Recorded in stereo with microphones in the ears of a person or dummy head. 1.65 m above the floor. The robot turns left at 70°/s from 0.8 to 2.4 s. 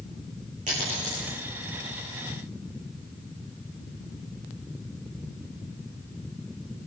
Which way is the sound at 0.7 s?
35° right (ahead or behind).